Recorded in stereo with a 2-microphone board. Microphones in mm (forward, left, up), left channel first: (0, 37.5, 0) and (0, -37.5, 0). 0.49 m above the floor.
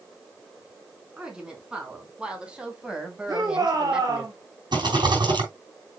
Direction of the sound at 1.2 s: 15° right (ahead or behind).